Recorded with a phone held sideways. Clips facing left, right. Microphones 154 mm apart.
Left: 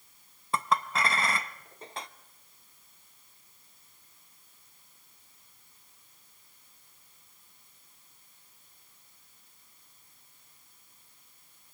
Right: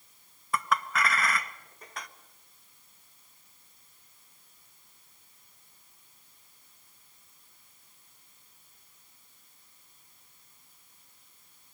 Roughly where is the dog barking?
I don't hear a dog barking.